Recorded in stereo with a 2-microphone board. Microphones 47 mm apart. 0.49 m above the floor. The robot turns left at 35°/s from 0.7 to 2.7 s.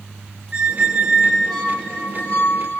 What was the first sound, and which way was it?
A squeak, 150° right.